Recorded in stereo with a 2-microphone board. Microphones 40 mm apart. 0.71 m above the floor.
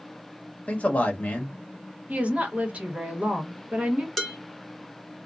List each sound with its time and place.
0.7 s a man speaking: 40° left (ahead or behind), 1.1 m
2.1 s a woman speaking: 35° right (ahead or behind), 1.0 m
4.2 s dishes clattering: 10° left (ahead or behind), 0.9 m